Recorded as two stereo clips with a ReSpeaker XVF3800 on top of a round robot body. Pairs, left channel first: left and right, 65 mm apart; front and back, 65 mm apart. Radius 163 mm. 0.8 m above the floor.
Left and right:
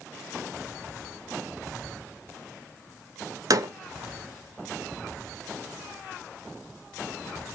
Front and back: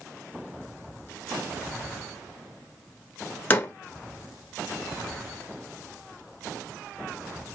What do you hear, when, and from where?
3.5 s a door slam: 60° right, 1.4 m